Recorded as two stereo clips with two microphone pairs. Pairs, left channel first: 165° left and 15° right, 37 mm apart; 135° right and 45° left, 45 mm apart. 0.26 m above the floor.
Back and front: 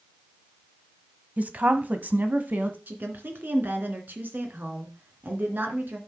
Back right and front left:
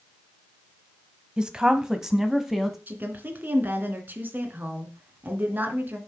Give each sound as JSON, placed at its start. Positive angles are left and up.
{"t": 1.4, "sound": "a woman speaking", "azimuth_deg": -15, "distance_m": 1.4}
{"t": 2.9, "sound": "a woman speaking", "azimuth_deg": 5, "distance_m": 2.5}